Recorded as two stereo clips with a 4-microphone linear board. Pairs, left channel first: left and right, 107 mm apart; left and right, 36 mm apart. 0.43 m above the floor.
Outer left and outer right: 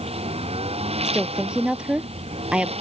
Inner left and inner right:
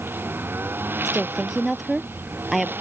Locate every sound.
0.0 s a lawn mower: 75° right (ahead or behind)
1.1 s a woman speaking: 10° right (ahead or behind)